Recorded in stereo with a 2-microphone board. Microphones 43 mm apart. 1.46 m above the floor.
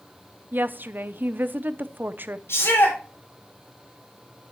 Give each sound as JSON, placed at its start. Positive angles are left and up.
{"t": 0.5, "sound": "a woman speaking", "side_deg": -50, "distance_m": 0.8}
{"t": 2.5, "sound": "a shout", "side_deg": 75, "distance_m": 7.0}